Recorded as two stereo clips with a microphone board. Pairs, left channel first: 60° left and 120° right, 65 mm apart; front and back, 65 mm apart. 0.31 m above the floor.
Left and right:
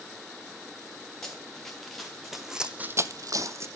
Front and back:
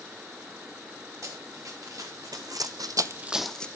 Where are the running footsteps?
140° left, 3 m; by 3.7 s 75° right, 0.9 m.